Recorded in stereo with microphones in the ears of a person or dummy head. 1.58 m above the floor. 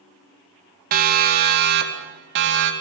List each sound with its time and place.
0.9 s a siren: 50° right (ahead or behind), 2.5 m; by 2.7 s 65° right (ahead or behind), 4 m